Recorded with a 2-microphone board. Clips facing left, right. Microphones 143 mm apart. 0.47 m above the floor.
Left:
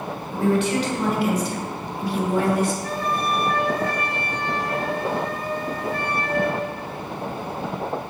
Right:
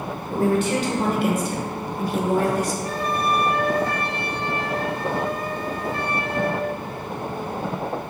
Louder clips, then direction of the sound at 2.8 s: Right 1 dB; 25° right (ahead or behind).